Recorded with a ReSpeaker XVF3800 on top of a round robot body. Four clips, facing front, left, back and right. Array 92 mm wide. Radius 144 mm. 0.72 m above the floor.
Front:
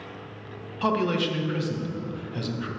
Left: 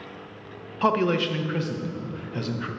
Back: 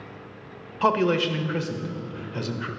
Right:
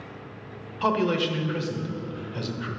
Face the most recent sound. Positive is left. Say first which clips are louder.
# left 2 dB, back 3 dB
turn(degrees=140)